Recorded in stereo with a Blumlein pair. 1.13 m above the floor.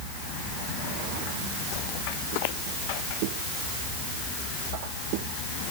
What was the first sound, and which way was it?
Only background noise.